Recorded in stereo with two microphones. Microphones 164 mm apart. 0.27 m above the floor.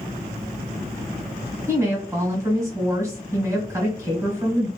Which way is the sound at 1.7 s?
20° right (ahead or behind).